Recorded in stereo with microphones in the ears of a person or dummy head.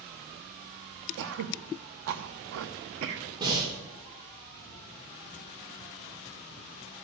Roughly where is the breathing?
Right.